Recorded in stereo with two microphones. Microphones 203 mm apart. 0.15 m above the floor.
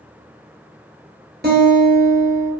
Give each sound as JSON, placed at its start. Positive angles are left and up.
{"t": 1.4, "sound": "a guitar", "side_deg": -55, "distance_m": 1.1}